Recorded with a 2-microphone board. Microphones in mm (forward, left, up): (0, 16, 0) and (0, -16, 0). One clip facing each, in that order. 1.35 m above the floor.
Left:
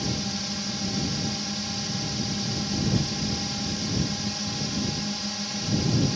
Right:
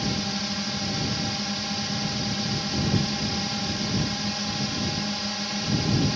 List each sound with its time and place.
0.0 s a drone: 15° right (ahead or behind)